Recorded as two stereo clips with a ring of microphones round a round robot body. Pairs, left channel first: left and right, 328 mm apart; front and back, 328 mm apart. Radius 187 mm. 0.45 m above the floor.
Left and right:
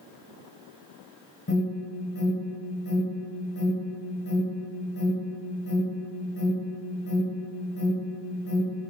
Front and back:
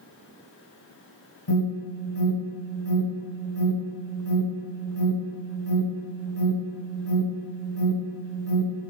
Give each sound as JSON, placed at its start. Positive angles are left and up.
{"t": 1.5, "sound": "an alarm", "azimuth_deg": 30, "distance_m": 4.5}